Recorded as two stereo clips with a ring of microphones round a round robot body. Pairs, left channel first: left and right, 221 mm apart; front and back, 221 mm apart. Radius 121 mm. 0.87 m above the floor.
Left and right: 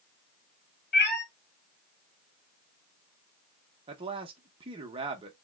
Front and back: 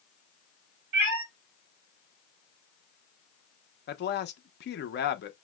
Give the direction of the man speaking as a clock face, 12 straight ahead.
1 o'clock.